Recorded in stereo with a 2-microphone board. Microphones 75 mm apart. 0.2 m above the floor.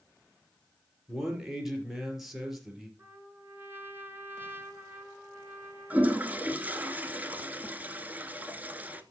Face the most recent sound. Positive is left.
turn(degrees=-20)  # may be behind; listen again after turning